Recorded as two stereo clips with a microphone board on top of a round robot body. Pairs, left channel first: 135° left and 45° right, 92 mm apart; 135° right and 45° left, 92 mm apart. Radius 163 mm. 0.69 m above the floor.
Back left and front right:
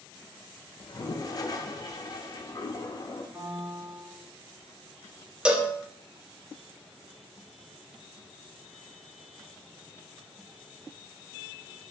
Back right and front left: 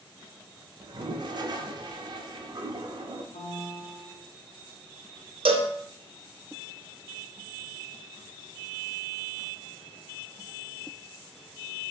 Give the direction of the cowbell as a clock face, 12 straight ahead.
11 o'clock.